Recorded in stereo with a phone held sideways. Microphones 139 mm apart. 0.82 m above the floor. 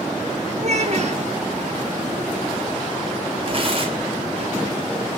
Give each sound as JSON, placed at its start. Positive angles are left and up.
{"t": 0.6, "sound": "a child speaking", "side_deg": -50, "distance_m": 1.2}
{"t": 3.5, "sound": "tearing paper", "side_deg": -40, "distance_m": 3.5}